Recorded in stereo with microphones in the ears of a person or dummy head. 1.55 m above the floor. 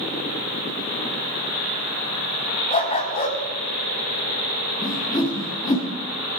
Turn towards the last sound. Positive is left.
turn(degrees=25)  # may be behind; listen again after turning